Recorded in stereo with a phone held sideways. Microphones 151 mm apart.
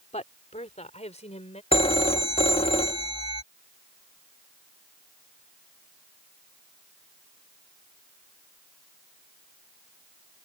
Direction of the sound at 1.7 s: 40° left (ahead or behind).